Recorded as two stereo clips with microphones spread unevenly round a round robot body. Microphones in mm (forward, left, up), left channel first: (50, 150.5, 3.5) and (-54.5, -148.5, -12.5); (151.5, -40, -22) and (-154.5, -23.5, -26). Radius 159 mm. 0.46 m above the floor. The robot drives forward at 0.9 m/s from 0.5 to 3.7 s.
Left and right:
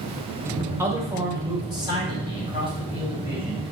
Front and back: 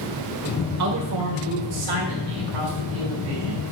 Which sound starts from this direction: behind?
A man speaking, at 0.8 s.